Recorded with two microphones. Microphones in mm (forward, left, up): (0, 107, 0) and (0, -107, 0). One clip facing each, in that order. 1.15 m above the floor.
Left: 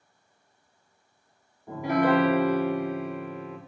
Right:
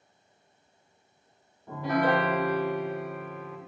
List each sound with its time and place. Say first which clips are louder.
1.7 s a piano: left 3 dB; 10° left (ahead or behind), 0.8 m